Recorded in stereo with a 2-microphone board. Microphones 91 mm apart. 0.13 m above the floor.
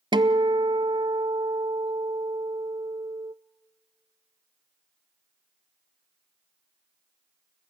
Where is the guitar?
60° right (ahead or behind), 0.7 m.